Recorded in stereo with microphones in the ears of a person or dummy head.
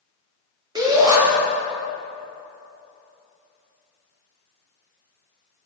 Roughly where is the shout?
Right.